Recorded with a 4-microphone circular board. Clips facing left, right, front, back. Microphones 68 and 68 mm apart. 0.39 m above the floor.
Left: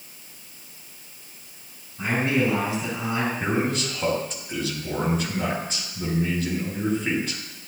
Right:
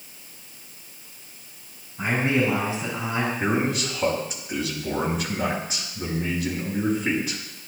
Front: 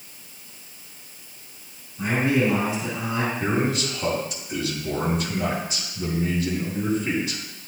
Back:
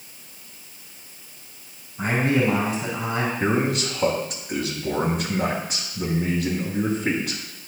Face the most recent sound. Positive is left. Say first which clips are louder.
# right 1 dB, back 3 dB
turn(degrees=-170)